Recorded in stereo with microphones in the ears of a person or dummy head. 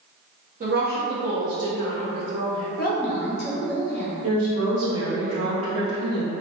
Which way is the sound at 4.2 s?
85° right.